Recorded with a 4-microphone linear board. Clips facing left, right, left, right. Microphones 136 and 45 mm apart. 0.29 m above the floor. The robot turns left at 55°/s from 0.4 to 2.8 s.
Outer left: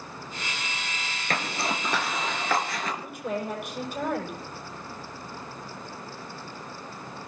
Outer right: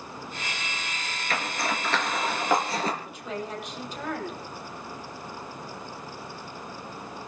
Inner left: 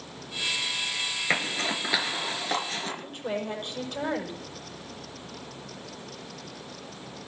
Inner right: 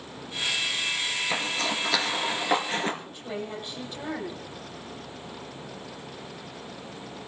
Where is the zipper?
45° left (ahead or behind), 3 m; by 2.9 s 35° right (ahead or behind), 3 m.